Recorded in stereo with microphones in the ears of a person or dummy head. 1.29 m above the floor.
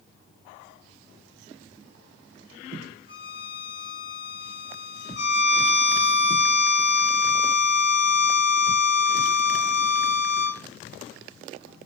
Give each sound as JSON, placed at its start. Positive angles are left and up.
{"t": 3.1, "sound": "a violin", "side_deg": 20, "distance_m": 1.5}
{"t": 5.2, "sound": "a violin", "side_deg": 55, "distance_m": 1.3}